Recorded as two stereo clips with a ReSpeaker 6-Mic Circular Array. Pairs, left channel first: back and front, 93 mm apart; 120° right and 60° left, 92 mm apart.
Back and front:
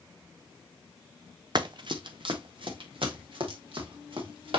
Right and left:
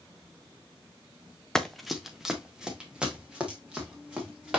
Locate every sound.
1.6 s running footsteps: 35° right, 1.0 m; by 4.6 s 15° right, 4.5 m